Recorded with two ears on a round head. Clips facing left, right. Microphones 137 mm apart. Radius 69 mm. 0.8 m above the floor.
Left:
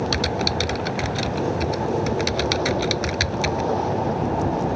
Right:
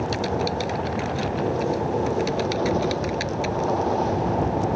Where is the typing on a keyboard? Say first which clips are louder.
Even; 70° left (ahead or behind).